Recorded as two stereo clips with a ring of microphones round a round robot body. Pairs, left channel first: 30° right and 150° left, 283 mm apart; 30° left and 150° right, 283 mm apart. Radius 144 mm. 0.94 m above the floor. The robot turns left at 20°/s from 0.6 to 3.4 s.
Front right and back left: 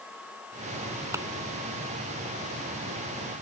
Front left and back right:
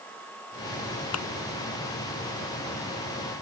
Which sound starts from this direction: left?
A thud, at 1.1 s.